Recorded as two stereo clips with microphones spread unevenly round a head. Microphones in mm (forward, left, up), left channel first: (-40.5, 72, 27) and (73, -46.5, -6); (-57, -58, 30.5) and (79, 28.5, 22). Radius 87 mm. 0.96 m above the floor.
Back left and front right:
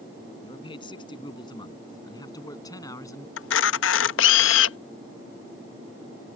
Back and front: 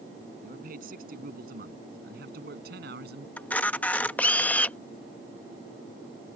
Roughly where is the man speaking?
Left.